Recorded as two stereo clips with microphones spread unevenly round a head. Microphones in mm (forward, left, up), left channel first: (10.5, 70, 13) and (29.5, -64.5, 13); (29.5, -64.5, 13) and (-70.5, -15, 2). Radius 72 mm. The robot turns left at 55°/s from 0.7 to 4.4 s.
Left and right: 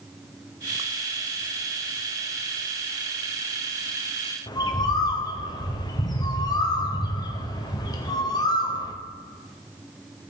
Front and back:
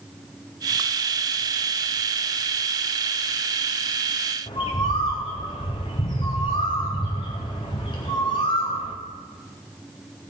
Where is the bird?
35° left, 1.1 m.